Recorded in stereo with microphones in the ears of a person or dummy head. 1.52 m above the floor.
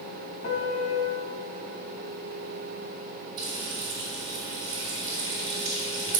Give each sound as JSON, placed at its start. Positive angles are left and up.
{"t": 0.4, "sound": "a piano", "side_deg": 70, "distance_m": 1.3}
{"t": 3.4, "sound": "frying", "side_deg": -20, "distance_m": 1.9}